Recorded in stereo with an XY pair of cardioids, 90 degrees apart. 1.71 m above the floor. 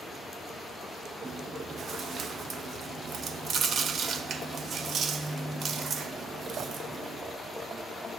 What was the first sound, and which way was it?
Chewing, 65° right.